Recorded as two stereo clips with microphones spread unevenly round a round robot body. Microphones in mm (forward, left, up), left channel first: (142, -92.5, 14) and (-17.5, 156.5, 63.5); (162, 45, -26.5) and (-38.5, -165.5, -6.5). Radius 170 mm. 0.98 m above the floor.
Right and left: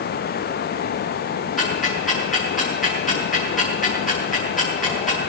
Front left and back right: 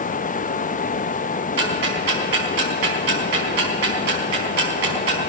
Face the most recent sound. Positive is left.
turn(degrees=-150)